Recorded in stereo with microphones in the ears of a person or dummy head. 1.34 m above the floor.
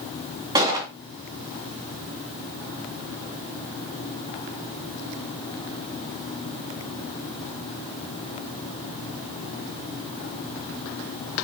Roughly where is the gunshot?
Right.